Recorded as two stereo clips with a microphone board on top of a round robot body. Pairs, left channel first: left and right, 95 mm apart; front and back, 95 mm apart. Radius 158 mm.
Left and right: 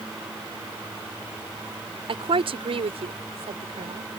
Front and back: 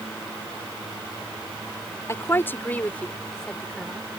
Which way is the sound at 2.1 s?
65° right.